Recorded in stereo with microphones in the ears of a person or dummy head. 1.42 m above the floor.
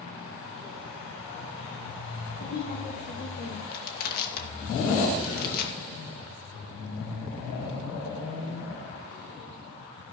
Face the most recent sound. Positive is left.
turn(degrees=50)  # may be behind; listen again after turning